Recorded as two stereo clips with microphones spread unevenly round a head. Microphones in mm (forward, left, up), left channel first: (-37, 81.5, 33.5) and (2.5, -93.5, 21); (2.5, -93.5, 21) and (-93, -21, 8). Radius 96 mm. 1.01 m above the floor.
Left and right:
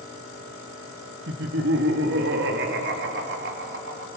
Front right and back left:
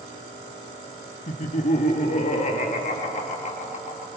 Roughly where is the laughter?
Ahead right.